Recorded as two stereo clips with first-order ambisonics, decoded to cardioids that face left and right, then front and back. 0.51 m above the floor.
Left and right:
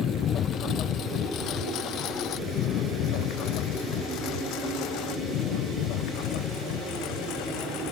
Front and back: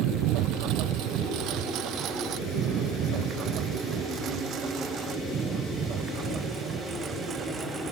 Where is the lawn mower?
150° left; by 7.9 s 115° left.